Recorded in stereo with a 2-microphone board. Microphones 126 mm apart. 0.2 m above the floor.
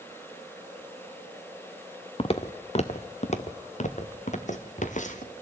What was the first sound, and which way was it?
Footsteps, 45° left (ahead or behind).